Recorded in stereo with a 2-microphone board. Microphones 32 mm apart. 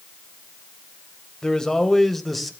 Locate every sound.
1.4 s a man speaking: 20° left (ahead or behind), 2 m; by 2.5 s centre (ahead or behind), 2 m